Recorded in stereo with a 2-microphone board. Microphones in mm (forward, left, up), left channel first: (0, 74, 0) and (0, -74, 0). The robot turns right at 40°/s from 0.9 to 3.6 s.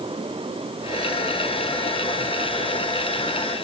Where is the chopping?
No chopping in this recording.